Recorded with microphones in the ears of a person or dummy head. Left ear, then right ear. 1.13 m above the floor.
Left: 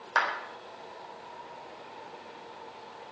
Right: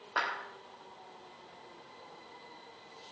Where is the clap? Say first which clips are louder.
Left 6 dB; 70° left (ahead or behind), 4 m.